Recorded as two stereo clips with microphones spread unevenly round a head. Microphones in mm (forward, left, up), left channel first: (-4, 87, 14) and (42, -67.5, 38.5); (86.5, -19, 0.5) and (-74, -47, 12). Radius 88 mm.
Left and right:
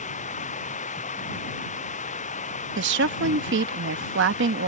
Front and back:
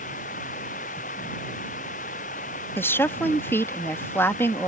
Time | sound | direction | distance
0.0 | running water | 60° left | ?
2.8 | a woman speaking | 65° right | ?